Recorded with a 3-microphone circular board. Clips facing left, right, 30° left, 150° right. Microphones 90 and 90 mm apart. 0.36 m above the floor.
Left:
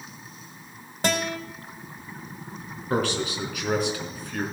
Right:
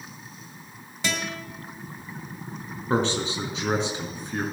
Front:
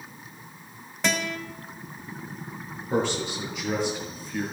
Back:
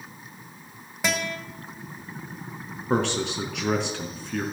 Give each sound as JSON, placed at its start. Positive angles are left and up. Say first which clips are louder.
{"t": 1.0, "sound": "a guitar", "louder": "left 5 dB, even", "azimuth_deg": 125, "distance_m": 2.0}
{"t": 2.9, "sound": "a man speaking", "louder": "right 1 dB, back 1 dB", "azimuth_deg": -155, "distance_m": 4.0}